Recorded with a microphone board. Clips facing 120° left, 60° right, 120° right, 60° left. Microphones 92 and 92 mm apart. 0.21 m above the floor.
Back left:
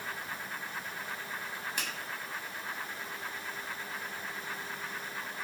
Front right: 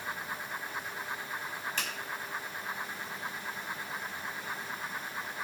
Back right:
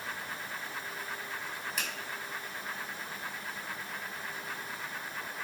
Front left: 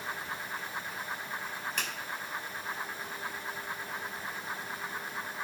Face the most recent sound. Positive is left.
turn(degrees=170)